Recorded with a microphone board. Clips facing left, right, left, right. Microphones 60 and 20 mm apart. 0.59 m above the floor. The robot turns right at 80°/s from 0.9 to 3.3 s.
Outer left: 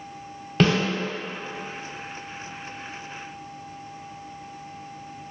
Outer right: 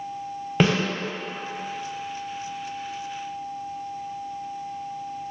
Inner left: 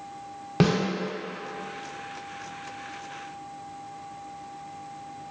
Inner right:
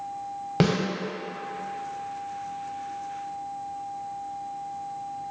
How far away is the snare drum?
About 0.7 m.